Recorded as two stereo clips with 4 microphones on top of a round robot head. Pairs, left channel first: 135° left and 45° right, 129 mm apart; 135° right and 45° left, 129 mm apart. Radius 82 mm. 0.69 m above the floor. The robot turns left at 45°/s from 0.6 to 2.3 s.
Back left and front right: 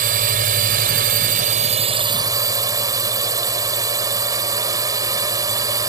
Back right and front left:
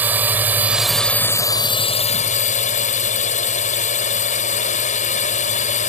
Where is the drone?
30° right; by 5.9 s 110° right.